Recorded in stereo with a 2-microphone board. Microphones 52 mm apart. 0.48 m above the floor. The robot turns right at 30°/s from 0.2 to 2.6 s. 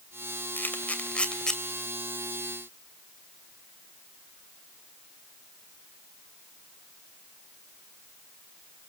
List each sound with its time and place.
0.6 s a camera shutter: 35° left (ahead or behind), 2.5 m; by 1.6 s 10° left (ahead or behind), 2.5 m